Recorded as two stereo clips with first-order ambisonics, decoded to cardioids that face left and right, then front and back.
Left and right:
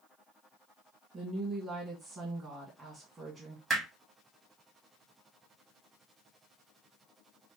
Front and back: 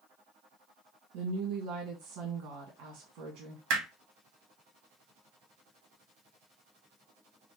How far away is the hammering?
About 1.6 m.